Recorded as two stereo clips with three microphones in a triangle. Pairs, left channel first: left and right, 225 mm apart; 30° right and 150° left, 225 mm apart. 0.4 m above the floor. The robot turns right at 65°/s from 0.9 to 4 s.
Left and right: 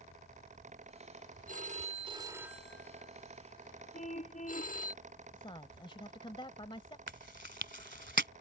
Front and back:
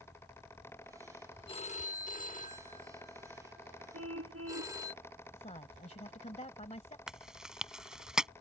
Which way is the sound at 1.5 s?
80° right.